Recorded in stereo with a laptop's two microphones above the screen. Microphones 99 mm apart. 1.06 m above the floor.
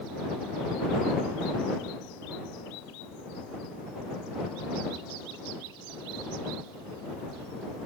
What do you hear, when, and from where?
Only background noise.